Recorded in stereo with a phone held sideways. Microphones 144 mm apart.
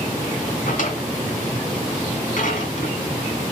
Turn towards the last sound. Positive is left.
turn(degrees=65)  # may be behind; listen again after turning